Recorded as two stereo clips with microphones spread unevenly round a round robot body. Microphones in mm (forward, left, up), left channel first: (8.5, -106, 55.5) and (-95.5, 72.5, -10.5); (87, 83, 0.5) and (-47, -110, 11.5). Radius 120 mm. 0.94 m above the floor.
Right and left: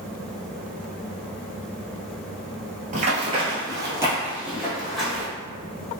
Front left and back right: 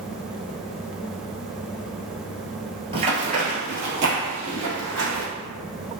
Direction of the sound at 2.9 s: Straight behind.